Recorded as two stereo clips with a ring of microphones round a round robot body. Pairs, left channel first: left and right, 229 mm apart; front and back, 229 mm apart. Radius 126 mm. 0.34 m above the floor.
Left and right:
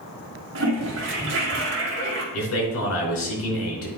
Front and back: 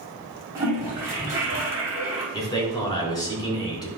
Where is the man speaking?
75° left, 3 m.